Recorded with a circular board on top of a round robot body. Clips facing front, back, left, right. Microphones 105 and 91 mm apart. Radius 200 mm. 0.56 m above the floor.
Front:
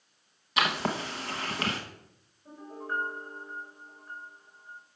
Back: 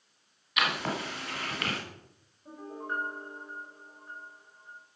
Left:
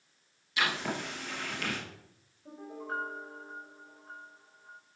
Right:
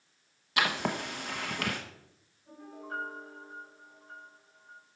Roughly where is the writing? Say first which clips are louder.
Front 2 dB, right 2 dB; ahead right.